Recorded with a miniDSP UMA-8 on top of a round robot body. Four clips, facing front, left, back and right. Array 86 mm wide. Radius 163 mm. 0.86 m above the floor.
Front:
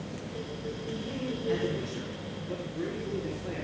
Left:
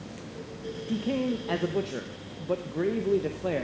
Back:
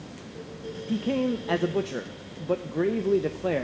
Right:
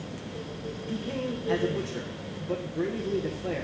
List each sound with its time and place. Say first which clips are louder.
0.9 s a man speaking: left 5 dB, back 11 dB; 160° left, 1.0 m